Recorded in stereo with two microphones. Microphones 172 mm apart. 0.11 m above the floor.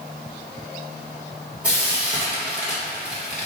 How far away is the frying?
About 1.9 m.